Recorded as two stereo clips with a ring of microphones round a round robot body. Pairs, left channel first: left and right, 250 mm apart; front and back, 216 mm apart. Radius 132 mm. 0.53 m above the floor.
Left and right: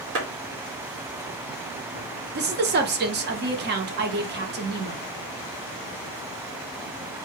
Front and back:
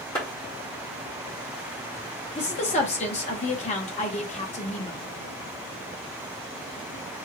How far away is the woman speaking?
About 0.9 m.